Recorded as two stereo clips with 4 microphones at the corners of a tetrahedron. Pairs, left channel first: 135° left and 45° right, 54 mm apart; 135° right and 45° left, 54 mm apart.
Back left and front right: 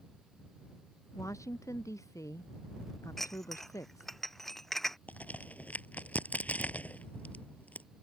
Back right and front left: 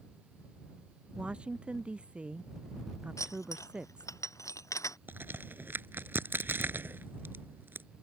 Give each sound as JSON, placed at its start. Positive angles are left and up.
{"t": 1.1, "sound": "a woman speaking", "azimuth_deg": 115}
{"t": 3.2, "sound": "dishes clattering", "azimuth_deg": -140}
{"t": 5.1, "sound": "a crack", "azimuth_deg": 85}